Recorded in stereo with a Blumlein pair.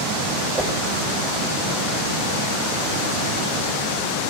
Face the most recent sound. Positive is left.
turn(degrees=-10)